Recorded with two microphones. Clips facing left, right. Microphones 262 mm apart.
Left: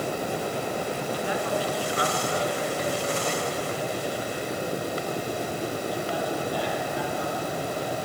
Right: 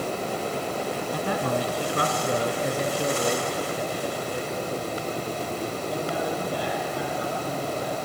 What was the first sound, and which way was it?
A man speaking, 55° right (ahead or behind).